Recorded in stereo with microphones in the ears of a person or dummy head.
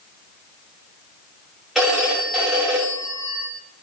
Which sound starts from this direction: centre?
A phone ringing, at 1.8 s.